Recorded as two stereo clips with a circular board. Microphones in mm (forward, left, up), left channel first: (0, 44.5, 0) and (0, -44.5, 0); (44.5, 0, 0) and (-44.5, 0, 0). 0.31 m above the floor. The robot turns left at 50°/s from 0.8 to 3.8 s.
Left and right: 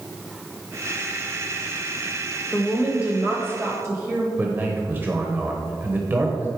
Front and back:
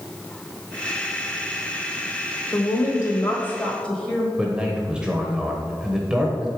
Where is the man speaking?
115° right, 1.0 m.